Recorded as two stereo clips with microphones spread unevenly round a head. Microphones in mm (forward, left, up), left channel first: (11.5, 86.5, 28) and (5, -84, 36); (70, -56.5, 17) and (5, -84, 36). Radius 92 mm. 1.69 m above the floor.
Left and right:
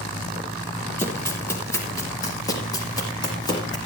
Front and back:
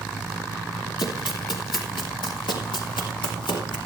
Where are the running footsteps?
10° left, 4 m; by 3.8 s 20° left, 6.5 m.